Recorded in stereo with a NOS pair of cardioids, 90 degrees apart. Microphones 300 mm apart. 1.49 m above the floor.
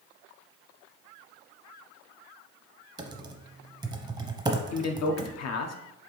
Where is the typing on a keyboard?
15° right, 0.6 m.